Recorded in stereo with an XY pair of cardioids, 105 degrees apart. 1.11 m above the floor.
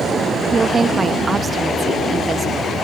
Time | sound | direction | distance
0.5 | a woman speaking | 30° right | 1.6 m